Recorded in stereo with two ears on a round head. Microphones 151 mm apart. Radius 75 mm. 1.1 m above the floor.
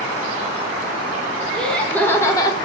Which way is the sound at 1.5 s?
5° left (ahead or behind).